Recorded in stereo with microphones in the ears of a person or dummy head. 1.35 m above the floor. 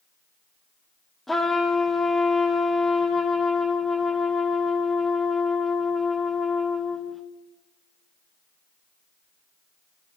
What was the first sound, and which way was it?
A trumpet, centre (ahead or behind).